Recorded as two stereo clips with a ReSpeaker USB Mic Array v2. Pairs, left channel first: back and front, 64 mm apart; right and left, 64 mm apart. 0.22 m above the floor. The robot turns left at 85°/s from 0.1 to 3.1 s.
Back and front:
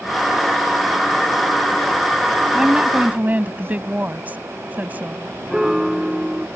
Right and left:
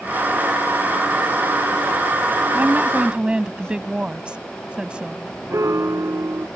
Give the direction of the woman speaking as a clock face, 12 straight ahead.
9 o'clock.